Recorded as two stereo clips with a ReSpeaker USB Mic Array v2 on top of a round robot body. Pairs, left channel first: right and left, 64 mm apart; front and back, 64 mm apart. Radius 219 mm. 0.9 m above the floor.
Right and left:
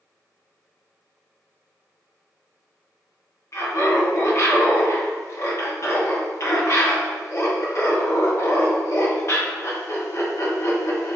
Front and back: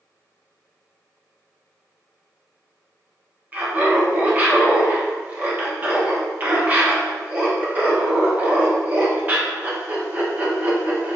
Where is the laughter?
120° right, 1.0 m.